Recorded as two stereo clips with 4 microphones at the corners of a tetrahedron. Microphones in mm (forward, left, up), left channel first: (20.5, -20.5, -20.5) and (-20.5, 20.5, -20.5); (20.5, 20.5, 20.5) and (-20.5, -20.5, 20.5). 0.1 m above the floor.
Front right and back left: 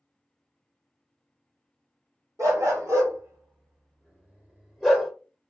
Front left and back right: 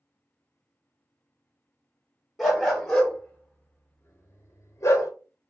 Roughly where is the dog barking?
Behind left.